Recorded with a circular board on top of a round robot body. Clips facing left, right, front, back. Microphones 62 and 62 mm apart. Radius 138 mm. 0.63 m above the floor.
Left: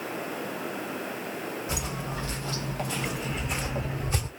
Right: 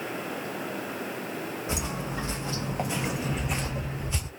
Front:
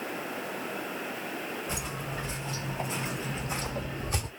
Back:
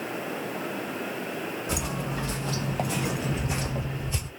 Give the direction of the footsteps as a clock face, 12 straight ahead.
5 o'clock.